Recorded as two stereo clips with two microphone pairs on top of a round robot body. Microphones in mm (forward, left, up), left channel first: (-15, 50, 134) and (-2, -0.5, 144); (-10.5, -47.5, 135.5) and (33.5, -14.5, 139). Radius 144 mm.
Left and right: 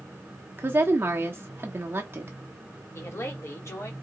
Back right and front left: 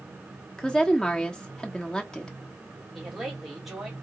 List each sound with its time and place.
0.6 s a woman speaking: 85° right, 1.3 m
2.9 s a woman speaking: 125° left, 2.5 m